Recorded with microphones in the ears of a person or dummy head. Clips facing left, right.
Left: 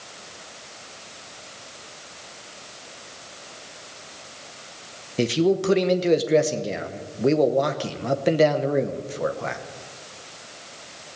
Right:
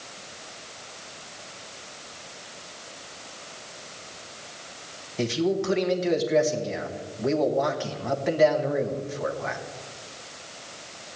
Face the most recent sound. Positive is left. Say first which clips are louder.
# left 4 dB
turn(degrees=40)  # may be behind; listen again after turning